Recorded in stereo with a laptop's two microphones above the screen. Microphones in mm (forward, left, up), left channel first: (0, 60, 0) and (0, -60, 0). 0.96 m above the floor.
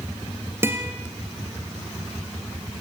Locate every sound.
0.6 s a guitar: 20° right (ahead or behind), 3 m